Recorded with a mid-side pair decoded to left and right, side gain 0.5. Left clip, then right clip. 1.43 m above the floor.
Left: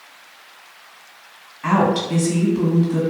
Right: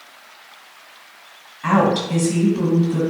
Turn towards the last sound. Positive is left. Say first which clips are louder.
# right 1 dB
turn(degrees=0)